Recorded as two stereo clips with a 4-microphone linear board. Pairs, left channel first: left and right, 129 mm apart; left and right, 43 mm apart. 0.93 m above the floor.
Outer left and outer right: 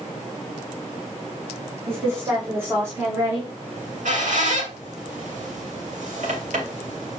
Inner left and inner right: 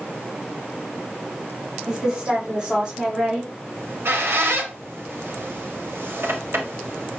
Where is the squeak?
70° right (ahead or behind), 3 m.